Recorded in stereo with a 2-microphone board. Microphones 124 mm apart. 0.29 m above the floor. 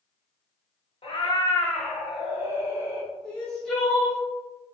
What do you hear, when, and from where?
1.0 s a cat meowing: 45° left (ahead or behind), 0.6 m; by 3.1 s 30° right (ahead or behind), 1.2 m
3.2 s crying: 5° left (ahead or behind), 0.8 m